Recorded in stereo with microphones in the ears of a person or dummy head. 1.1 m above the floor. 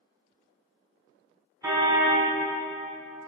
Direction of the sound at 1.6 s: 15° right (ahead or behind).